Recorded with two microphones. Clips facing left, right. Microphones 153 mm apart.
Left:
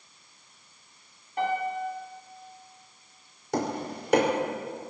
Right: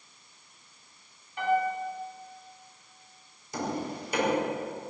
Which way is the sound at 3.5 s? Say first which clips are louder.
Left 3 dB; 85° left.